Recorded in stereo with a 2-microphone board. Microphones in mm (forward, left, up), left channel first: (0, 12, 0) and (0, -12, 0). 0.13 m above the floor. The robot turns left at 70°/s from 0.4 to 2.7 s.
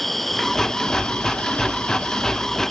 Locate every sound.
0.0 s an insect: 175° left; by 2.7 s 15° left